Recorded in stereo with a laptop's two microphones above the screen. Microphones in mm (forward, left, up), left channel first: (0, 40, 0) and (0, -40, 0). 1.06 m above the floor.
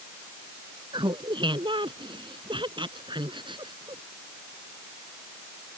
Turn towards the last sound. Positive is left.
turn(degrees=-80)